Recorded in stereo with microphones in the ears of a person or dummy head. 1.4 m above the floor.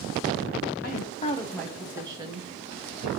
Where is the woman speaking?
50° left (ahead or behind), 0.9 m; by 3.1 s 40° right (ahead or behind), 1.7 m.